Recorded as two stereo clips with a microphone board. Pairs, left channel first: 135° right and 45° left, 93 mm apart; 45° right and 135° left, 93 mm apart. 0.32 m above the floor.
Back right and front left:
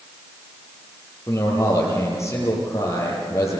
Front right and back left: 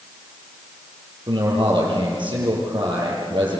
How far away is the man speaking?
About 8.5 m.